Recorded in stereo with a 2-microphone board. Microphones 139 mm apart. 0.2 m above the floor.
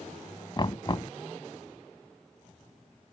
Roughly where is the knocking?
Left.